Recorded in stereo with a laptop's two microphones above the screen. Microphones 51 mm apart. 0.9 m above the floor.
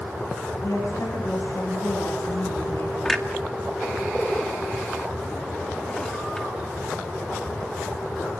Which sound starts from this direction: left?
A woman speaking, at 0.6 s.